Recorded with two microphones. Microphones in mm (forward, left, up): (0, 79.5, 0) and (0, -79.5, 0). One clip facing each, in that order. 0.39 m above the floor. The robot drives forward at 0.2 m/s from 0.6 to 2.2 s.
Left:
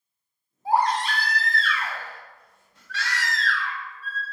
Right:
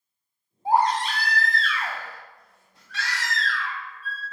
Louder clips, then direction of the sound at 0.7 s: Right 1 dB; 20° right (ahead or behind).